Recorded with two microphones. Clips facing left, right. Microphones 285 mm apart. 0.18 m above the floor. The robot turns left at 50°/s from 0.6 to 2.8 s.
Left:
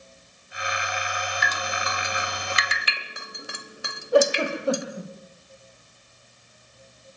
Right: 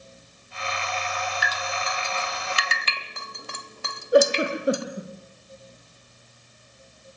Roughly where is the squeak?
No squeak in this recording.